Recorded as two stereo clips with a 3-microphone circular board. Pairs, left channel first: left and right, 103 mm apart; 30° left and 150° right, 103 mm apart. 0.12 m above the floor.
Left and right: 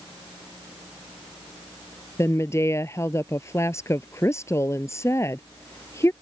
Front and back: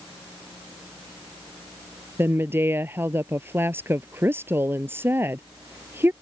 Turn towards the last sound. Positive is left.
turn(degrees=145)